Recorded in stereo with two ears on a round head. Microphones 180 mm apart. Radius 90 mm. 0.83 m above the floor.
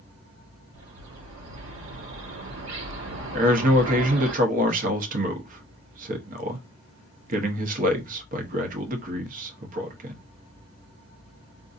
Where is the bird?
70° right (ahead or behind), 1.5 m.